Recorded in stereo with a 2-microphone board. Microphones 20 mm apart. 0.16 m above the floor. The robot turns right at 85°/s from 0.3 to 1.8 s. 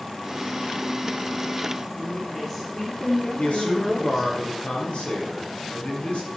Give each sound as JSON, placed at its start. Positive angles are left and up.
{"t": 1.9, "sound": "a woman speaking", "side_deg": 15, "distance_m": 4.0}
{"t": 3.4, "sound": "a man speaking", "side_deg": 70, "distance_m": 3.5}